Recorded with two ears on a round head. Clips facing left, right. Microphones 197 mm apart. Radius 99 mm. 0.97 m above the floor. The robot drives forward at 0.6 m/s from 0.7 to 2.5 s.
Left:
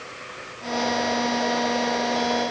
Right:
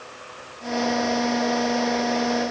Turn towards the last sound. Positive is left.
No sound to turn to.